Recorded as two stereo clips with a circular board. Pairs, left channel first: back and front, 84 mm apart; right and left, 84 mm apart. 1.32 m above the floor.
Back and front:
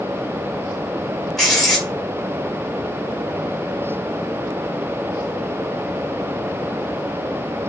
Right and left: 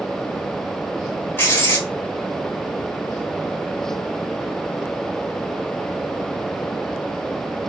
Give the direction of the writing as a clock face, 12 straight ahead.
3 o'clock.